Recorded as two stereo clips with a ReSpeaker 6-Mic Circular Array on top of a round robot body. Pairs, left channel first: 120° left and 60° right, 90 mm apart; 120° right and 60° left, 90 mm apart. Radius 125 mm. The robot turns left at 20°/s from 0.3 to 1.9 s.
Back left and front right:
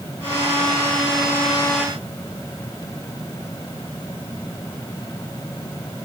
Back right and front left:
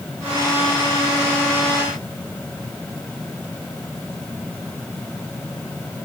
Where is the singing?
No singing in this recording.